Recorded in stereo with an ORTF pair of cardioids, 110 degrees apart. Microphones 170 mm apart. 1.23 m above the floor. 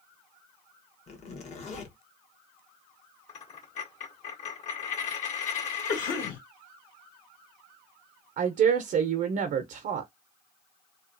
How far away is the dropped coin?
About 1.7 m.